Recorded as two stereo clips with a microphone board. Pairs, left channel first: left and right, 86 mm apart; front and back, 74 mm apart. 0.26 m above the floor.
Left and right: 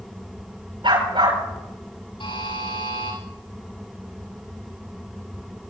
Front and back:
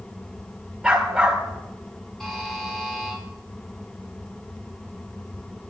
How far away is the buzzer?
About 10 m.